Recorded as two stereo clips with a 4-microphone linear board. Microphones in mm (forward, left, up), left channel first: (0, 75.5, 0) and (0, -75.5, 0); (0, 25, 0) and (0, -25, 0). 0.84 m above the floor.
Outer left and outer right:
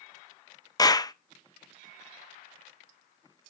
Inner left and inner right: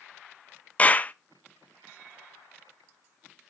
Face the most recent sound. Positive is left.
turn(degrees=25)  # may be behind; listen again after turning